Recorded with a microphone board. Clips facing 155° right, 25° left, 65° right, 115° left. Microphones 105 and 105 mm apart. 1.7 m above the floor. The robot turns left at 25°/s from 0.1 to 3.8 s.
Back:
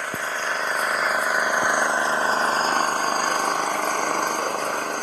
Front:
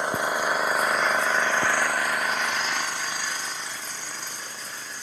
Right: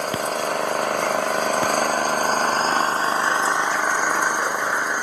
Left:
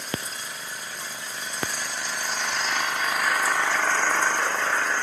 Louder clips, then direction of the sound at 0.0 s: Front 3 dB, right 11 dB; 50° right.